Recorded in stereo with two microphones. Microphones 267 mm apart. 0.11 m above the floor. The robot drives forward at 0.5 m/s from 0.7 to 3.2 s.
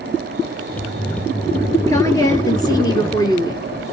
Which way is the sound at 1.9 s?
10° left (ahead or behind).